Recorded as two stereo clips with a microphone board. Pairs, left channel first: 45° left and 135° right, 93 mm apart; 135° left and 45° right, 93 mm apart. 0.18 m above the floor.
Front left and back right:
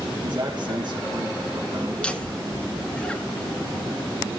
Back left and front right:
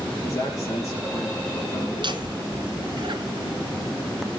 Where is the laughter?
30° right, 1.9 m.